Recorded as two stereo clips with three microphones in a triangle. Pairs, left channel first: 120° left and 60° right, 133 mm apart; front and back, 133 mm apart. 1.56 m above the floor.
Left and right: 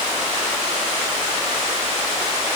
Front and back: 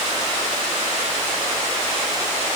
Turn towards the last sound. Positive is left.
No sound to turn to.